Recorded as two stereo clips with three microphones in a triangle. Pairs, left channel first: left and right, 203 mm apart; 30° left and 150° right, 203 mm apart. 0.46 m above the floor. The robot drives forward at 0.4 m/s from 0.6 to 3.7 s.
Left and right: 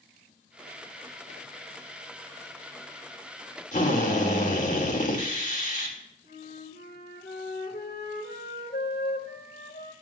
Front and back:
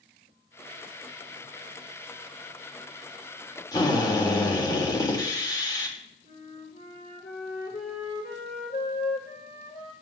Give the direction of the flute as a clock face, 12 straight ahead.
10 o'clock.